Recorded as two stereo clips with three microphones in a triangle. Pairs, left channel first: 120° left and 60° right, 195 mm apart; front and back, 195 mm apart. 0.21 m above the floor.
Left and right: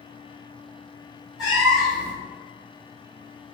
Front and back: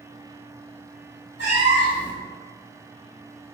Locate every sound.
1.4 s a cat meowing: 25° left, 1.5 m